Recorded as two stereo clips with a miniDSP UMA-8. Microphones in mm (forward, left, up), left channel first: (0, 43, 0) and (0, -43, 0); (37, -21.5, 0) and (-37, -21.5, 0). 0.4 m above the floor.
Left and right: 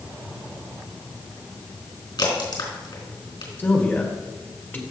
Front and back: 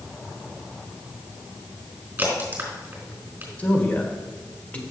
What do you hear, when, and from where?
2.2 s a crack: 115° left, 4 m
3.6 s a man speaking: 45° left, 1.3 m